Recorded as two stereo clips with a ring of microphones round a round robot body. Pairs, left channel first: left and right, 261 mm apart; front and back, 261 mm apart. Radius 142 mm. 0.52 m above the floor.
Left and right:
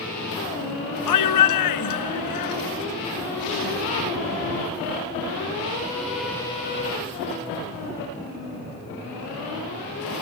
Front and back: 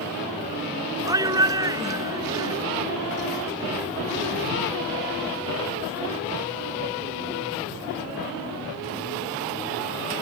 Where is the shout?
100° left.